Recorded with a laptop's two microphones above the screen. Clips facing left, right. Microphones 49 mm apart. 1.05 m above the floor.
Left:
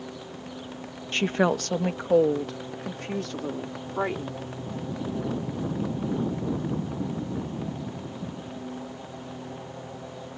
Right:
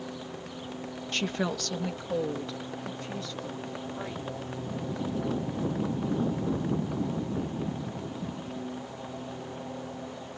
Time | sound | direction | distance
1.1 | a woman speaking | 30° left (ahead or behind) | ?